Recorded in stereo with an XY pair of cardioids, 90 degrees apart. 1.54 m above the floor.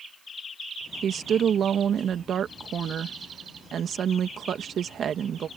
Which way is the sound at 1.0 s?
60° right.